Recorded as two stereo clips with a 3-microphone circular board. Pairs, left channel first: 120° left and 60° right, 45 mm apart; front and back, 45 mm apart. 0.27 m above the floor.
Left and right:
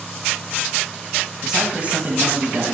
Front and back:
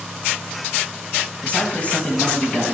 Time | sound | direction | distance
1.4 | a man speaking | 15° left | 1.0 m